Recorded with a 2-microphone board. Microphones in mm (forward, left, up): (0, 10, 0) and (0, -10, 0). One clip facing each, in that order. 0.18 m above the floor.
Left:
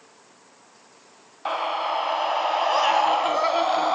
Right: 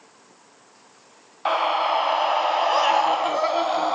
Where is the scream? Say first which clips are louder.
Right 4 dB; 20° right (ahead or behind), 1.4 m; by 4.0 s 10° left (ahead or behind), 1.4 m.